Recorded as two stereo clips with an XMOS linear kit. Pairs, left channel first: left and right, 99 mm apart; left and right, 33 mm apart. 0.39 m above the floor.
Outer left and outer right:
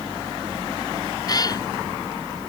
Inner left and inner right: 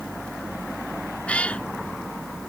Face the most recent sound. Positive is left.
turn(degrees=40)  # may be behind; listen again after turning